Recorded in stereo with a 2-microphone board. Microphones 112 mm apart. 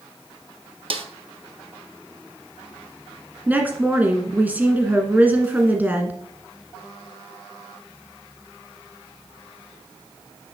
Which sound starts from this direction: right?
A snare drum, at 0.9 s.